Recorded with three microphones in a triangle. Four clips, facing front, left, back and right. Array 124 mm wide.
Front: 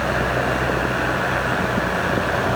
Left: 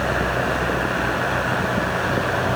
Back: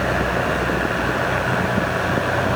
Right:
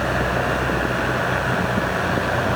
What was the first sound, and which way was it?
Only background noise.